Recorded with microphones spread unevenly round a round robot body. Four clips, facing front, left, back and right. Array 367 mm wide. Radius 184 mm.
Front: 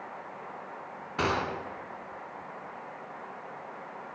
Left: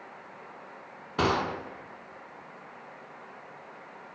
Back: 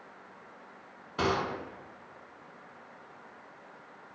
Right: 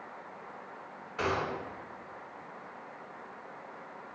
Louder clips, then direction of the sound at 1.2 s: Left 5 dB, even; 85° left.